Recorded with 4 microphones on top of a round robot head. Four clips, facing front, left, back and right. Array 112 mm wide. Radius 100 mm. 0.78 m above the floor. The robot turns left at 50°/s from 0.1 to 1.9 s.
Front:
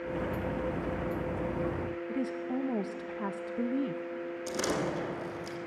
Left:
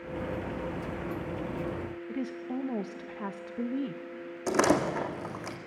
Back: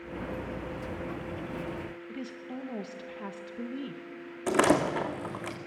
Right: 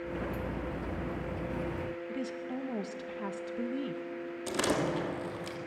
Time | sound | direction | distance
2.1 | a woman speaking | 40° left | 0.8 m
4.5 | a door slam | 140° left | 1.7 m